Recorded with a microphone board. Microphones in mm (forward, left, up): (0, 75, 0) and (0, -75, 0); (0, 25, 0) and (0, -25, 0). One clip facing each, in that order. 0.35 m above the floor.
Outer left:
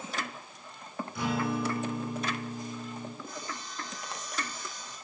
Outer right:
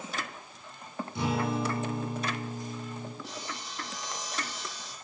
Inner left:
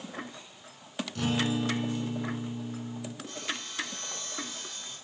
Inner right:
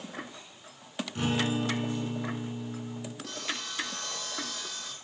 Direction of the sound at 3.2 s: 85° right.